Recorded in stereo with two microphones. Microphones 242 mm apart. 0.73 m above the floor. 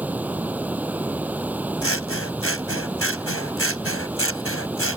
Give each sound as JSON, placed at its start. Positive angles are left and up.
{"t": 0.0, "sound": "running water", "side_deg": -5}
{"t": 1.8, "sound": "scissors", "side_deg": 65}